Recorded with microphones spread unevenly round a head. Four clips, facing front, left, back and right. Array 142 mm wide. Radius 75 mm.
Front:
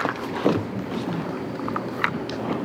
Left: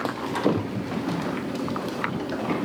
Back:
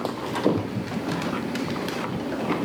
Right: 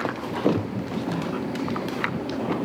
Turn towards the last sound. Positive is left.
No sound to turn to.